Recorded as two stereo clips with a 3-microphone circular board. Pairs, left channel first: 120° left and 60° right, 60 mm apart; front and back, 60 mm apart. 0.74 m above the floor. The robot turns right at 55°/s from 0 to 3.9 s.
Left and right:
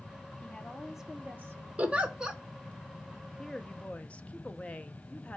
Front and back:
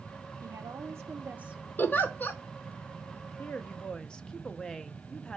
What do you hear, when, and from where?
0.4 s a woman speaking: 170° right, 1.0 m; by 1.7 s 100° right, 1.0 m
1.8 s a giggle: 15° right, 0.8 m; by 2.4 s 15° left, 0.8 m
3.4 s a woman speaking: 40° left, 0.6 m; by 5.4 s 70° left, 0.6 m